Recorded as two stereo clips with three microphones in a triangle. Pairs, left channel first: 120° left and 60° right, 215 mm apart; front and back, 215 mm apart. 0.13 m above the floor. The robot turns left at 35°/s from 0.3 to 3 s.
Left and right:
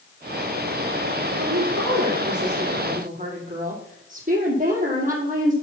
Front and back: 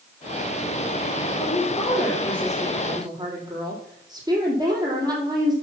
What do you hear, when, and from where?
1.4 s a woman speaking: 55° right, 4 m; by 5.5 s 110° right, 4 m